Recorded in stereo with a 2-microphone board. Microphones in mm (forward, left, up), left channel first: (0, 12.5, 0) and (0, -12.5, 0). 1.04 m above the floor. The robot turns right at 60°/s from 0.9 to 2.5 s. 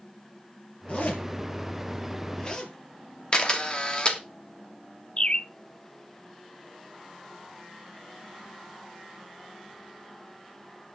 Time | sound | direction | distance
0.9 | a zipper | 50° left (ahead or behind) | 4 m
3.3 | a camera shutter | 35° left (ahead or behind) | 2.5 m
5.2 | a bird | 45° left (ahead or behind) | 0.7 m